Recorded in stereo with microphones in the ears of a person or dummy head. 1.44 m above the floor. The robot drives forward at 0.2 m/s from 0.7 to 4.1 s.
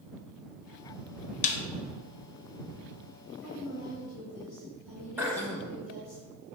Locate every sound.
1.4 s a snare drum: 40° left (ahead or behind), 0.6 m
3.4 s a woman speaking: 5° left (ahead or behind), 1.3 m
5.2 s throat clearing: 15° right (ahead or behind), 0.6 m